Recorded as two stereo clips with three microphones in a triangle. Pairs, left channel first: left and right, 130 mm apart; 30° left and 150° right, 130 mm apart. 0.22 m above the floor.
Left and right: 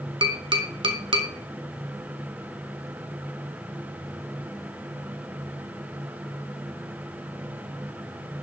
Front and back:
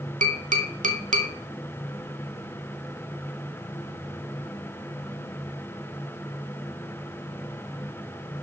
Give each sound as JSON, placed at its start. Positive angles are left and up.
{"t": 0.2, "sound": "tapping", "azimuth_deg": -140, "distance_m": 1.1}